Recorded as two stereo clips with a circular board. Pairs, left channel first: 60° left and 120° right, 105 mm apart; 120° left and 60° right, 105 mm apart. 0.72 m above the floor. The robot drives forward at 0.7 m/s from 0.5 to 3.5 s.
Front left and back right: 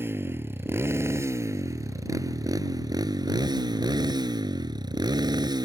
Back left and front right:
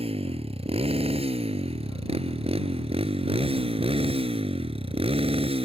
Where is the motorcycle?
55° right; by 5.6 s 75° right.